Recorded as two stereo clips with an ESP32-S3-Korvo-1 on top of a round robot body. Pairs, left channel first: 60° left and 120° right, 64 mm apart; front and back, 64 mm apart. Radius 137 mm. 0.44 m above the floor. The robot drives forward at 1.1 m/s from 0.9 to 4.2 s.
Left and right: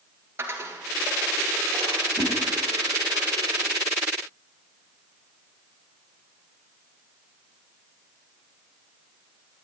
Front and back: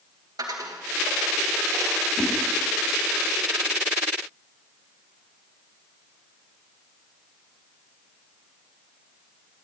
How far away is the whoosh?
About 4 m.